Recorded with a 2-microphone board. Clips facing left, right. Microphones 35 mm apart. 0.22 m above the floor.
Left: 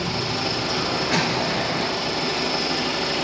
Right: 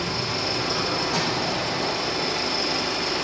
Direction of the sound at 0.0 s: 80° left.